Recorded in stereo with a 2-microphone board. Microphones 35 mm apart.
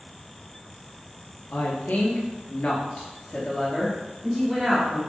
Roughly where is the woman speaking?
Left.